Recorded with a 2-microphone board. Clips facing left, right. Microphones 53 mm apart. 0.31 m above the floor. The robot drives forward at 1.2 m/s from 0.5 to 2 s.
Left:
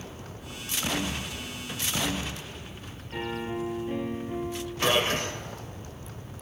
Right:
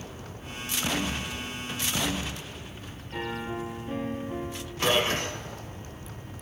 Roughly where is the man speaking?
Centre.